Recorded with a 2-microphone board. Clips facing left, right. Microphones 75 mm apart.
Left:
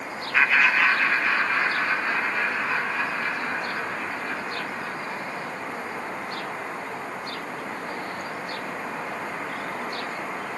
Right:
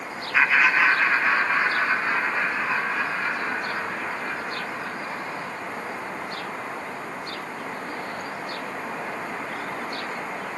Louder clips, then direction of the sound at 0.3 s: Right 1 dB; 5° right (ahead or behind).